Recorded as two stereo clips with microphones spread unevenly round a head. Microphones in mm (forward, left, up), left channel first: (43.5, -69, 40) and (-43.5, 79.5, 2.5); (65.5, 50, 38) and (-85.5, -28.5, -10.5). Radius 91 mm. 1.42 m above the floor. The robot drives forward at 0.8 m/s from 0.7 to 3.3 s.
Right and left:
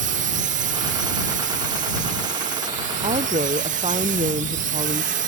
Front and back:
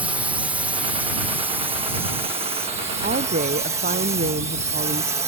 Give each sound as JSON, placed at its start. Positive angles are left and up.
{"t": 0.0, "sound": "a drone", "azimuth_deg": 135}
{"t": 3.0, "sound": "a woman speaking", "azimuth_deg": 175}